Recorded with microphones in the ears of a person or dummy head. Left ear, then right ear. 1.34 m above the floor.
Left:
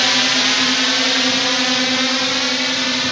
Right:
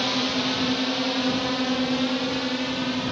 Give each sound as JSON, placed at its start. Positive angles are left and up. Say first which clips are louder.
{"t": 0.0, "sound": "a drone", "louder": "left 10 dB", "side_deg": 60}